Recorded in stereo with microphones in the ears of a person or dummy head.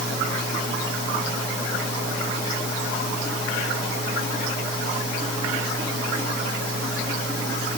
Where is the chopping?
No chopping in this recording.